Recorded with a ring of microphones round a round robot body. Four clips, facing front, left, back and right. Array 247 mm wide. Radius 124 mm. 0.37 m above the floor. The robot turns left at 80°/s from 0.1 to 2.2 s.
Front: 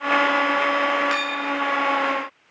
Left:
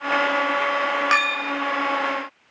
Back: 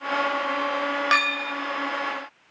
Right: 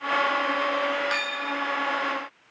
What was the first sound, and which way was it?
A clink, 130° left.